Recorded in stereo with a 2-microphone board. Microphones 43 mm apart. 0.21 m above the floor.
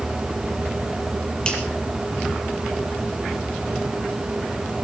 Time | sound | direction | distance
1.4 | a finger snap | 25° left (ahead or behind) | 5 m